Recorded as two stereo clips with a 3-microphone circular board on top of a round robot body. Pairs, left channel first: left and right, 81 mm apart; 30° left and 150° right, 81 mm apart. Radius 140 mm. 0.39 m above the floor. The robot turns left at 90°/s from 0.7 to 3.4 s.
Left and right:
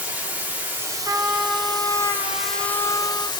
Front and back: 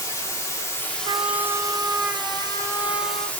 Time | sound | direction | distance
0.0 | running water | 20° right | 1.9 m
1.1 | a trumpet | 140° right | 0.6 m